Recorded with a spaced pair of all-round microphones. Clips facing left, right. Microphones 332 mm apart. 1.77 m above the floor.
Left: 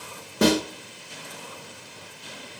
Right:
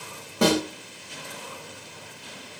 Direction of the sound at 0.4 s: 25° left (ahead or behind).